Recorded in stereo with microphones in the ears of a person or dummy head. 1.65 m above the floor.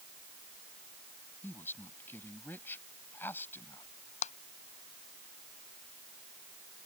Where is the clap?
40° left (ahead or behind).